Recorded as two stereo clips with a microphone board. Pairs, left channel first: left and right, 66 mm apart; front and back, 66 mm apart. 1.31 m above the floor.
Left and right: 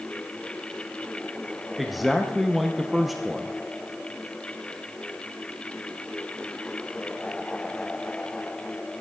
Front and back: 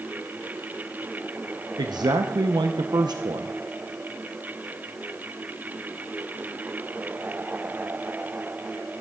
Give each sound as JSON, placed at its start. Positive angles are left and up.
{"t": 1.8, "sound": "a man speaking", "azimuth_deg": 180, "distance_m": 0.7}